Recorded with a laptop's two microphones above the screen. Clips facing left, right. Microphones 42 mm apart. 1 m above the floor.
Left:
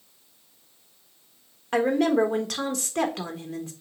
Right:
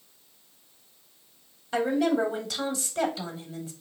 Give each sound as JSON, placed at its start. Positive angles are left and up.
{"t": 1.7, "sound": "a woman speaking", "side_deg": 70, "distance_m": 1.2}